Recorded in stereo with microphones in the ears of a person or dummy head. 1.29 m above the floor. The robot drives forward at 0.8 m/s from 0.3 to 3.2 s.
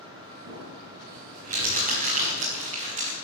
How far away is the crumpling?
About 5 m.